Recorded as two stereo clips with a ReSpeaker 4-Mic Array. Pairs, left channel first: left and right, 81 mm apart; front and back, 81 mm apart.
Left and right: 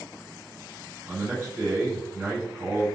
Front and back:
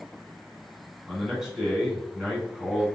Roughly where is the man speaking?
Right.